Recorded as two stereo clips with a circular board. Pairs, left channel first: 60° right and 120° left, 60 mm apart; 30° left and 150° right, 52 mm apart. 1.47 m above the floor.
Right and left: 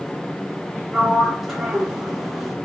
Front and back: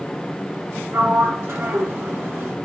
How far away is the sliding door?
About 1.3 m.